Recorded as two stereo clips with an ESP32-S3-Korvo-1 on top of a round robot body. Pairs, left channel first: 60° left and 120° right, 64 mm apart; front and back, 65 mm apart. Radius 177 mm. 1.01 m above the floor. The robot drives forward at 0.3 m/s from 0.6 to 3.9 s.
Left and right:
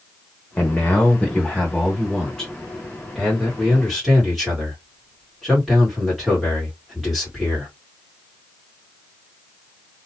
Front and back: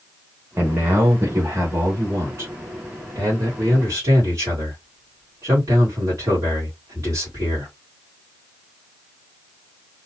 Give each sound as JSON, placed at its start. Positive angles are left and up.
{"t": 0.6, "sound": "a man speaking", "azimuth_deg": 125, "distance_m": 1.0}